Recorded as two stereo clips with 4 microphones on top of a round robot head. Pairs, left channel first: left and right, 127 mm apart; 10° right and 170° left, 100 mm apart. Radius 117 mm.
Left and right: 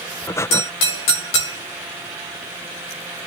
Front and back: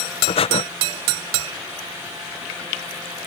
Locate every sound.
0.3 s breathing: 20° left